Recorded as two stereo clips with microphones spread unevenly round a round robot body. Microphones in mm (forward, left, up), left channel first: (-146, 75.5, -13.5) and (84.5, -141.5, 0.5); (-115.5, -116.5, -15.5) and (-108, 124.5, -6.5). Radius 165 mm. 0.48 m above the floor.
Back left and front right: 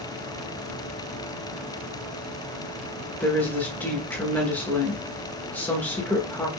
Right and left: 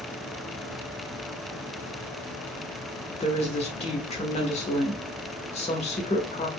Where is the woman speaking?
145° right, 1.2 m.